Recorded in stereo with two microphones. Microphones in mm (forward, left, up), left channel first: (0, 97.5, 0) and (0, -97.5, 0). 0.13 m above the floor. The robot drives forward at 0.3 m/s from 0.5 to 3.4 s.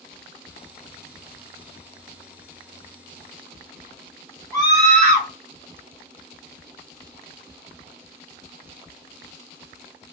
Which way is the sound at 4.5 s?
20° right (ahead or behind).